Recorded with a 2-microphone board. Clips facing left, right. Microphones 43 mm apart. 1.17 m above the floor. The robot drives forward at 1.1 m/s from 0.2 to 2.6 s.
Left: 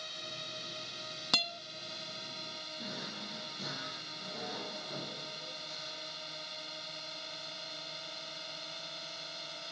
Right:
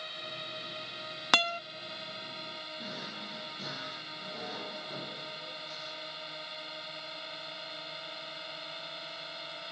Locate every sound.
0.0 s a drone: 20° right (ahead or behind)
1.3 s a guitar: 50° right (ahead or behind); by 1.6 s 65° right (ahead or behind)
2.8 s a drawer: centre (ahead or behind)